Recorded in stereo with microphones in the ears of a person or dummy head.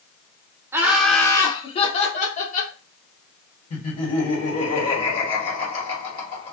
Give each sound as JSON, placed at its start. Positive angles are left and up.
{"t": 0.7, "sound": "laughter", "side_deg": -15, "distance_m": 0.7}
{"t": 3.7, "sound": "laughter", "side_deg": 40, "distance_m": 1.4}